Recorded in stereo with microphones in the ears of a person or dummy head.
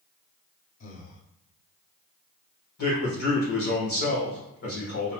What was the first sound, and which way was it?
Breathing, 45° left (ahead or behind).